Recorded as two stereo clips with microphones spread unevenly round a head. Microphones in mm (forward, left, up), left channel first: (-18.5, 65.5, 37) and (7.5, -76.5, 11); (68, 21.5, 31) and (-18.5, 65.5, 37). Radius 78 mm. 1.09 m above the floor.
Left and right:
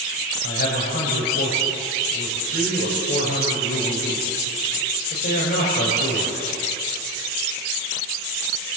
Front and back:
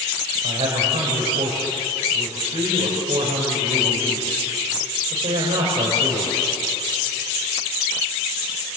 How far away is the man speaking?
About 6 m.